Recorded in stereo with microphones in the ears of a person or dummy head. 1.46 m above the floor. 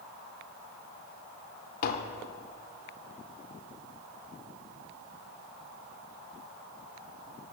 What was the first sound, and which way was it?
Tapping, 55° left (ahead or behind).